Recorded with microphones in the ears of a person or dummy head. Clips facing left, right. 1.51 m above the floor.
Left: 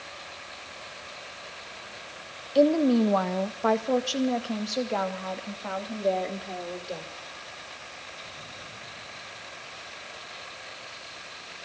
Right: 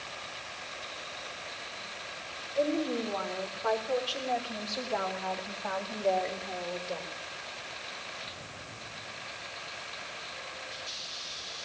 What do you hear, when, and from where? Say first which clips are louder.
2.5 s a woman speaking: left 9 dB; 75° left (ahead or behind), 1.3 m; by 7.1 s 30° left (ahead or behind), 3.5 m